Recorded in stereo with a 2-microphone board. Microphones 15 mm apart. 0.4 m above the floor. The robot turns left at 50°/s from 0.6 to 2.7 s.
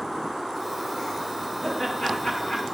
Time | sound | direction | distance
1.6 | laughter | 165° left | 7 m